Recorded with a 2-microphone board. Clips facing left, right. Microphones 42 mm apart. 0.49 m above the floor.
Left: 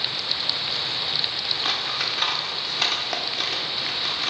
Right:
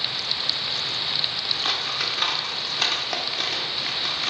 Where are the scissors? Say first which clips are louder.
Even; centre (ahead or behind), 0.8 m.